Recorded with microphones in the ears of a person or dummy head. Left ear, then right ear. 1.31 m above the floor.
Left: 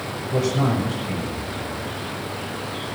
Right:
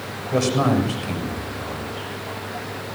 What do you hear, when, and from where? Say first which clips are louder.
0.3 s a man speaking: right 3 dB; 70° right (ahead or behind), 6.5 m